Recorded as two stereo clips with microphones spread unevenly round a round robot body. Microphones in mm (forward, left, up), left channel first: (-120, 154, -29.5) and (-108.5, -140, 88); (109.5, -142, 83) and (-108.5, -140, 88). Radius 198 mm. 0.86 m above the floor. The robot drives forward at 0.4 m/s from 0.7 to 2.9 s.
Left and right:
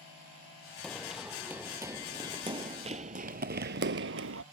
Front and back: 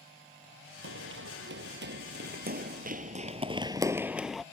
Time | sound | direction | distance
0.8 | running footsteps | 165° right | ?